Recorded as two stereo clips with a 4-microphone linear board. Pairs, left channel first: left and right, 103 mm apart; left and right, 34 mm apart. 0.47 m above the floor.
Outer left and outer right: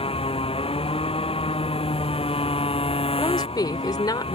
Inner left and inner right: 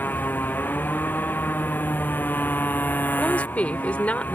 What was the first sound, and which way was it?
A motorcycle, 80° left.